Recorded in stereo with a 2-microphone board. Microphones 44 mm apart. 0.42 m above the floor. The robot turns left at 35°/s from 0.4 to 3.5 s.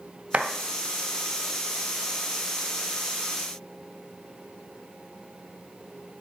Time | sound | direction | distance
0.3 | a clap | 30° right (ahead or behind) | 2 m